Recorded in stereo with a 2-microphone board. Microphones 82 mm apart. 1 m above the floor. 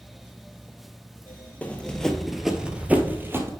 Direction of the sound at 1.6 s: 20° left (ahead or behind).